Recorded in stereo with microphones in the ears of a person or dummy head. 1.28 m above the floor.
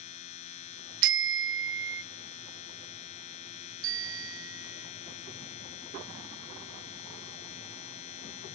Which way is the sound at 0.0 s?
45° left (ahead or behind).